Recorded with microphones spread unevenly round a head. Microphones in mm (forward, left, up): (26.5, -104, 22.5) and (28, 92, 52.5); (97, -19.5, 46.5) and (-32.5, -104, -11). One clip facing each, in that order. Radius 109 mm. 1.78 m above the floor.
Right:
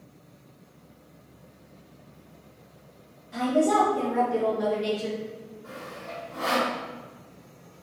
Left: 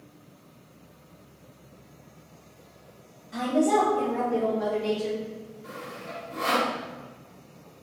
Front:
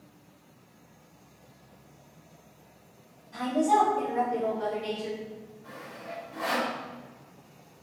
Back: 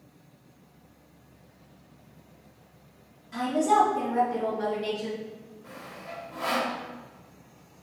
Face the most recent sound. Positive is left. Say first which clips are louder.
# right 1 dB, even
turn(degrees=125)